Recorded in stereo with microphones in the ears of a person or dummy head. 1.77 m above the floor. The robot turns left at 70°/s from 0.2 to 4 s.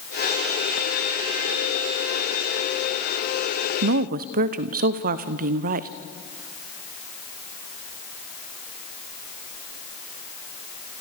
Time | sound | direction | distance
3.8 | a woman speaking | 55° right (ahead or behind) | 0.9 m